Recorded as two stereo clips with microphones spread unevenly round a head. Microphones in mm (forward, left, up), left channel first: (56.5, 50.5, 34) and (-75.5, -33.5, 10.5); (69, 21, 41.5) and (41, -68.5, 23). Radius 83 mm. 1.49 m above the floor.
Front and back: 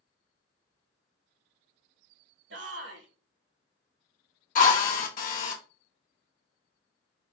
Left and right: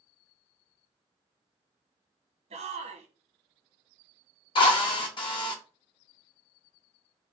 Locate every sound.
2.5 s a shout: 135° right, 1.3 m
4.5 s a drill: 55° left, 1.2 m